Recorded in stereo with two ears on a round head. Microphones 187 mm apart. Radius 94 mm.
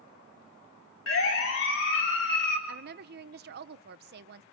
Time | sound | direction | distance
1.1 | a siren | 70° left (ahead or behind) | 4 m
2.7 | a woman speaking | 50° right (ahead or behind) | 0.9 m